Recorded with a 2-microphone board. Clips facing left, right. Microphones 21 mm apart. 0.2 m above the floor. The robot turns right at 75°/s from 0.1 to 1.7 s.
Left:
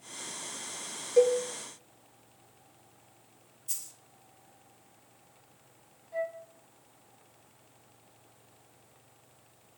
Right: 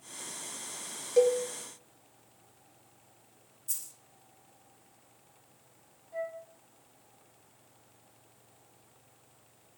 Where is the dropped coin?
15° left (ahead or behind), 1.7 m.